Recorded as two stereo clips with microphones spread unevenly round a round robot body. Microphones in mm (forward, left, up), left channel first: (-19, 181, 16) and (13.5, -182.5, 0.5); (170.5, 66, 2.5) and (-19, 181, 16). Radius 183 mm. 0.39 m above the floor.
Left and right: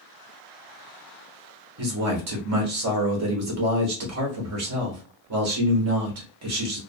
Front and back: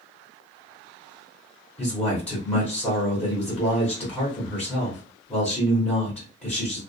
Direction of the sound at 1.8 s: 110° right.